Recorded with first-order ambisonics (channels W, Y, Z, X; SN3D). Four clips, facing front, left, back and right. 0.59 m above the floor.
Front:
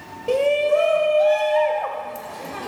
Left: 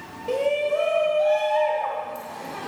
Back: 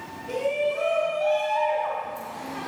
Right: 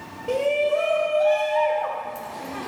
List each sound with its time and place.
0.3 s a shout: 5° right, 3 m